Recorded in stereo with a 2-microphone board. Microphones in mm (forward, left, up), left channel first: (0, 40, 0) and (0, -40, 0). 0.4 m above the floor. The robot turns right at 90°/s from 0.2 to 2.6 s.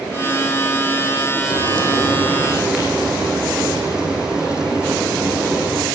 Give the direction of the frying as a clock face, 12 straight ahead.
9 o'clock.